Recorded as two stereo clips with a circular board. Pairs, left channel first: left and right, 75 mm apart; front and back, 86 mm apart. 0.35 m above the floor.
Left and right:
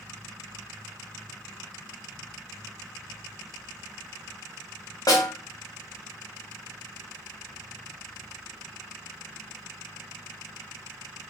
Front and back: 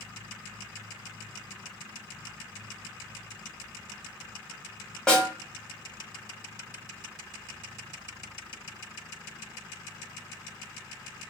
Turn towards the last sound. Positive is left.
turn(degrees=80)